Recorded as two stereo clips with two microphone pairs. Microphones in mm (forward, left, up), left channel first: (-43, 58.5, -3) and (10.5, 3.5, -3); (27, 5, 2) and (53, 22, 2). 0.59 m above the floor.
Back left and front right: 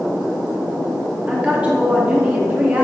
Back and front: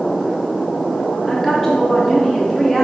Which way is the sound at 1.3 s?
85° right.